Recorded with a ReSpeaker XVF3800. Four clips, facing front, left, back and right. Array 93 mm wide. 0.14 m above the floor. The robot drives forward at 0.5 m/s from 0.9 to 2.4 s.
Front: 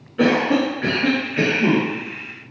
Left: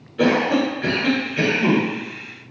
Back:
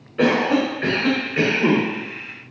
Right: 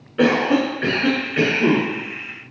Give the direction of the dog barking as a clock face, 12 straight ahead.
No dog barking in this recording.